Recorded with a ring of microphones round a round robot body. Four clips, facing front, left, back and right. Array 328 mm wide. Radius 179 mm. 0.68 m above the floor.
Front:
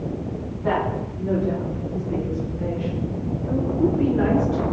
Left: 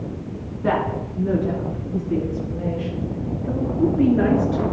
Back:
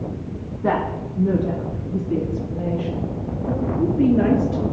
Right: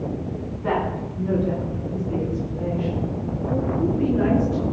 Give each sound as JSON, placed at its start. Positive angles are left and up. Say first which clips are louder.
{"t": 0.6, "sound": "a woman speaking", "louder": "left 3 dB, back 2 dB", "azimuth_deg": 165, "distance_m": 8.5}